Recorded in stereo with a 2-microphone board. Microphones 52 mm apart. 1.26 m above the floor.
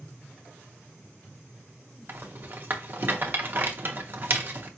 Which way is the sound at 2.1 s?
40° right (ahead or behind).